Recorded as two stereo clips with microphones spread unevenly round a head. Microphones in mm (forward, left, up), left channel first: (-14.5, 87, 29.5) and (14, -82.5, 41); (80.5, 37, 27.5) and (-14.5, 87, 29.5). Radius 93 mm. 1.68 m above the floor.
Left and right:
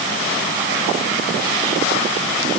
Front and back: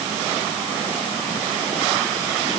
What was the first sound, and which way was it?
Only background noise.